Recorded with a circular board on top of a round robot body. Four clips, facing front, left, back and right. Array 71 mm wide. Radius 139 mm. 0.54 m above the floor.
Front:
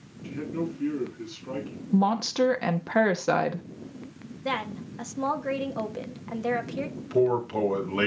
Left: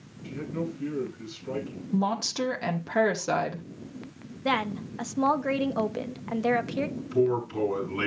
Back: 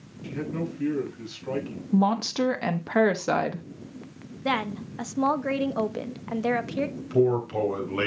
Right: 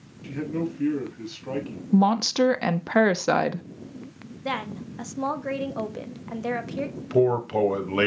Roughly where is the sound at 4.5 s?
Behind left.